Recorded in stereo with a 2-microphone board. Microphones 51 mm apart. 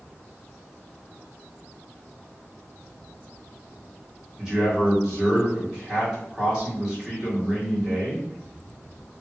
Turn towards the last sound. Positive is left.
turn(degrees=-15)  # may be behind; listen again after turning